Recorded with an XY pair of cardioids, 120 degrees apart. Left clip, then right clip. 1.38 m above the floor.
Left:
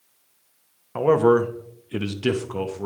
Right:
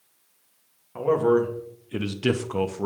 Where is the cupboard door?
I don't hear a cupboard door.